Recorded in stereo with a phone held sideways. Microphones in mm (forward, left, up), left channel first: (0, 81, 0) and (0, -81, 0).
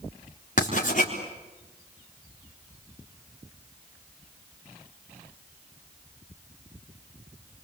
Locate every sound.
0.6 s writing: 55° left (ahead or behind), 3.5 m